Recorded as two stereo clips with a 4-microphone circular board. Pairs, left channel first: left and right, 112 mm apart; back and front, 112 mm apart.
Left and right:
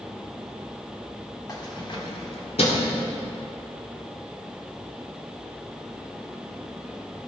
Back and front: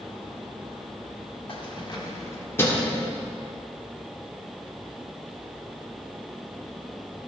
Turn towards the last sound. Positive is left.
turn(degrees=105)